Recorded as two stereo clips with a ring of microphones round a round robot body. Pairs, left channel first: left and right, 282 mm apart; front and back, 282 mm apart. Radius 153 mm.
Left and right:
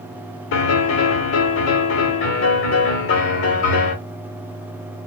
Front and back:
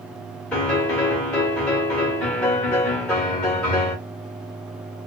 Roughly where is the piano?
Left.